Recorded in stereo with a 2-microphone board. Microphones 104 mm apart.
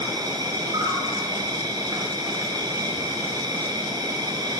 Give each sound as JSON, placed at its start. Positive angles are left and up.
{"t": 0.0, "sound": "an insect", "side_deg": -40, "distance_m": 5.0}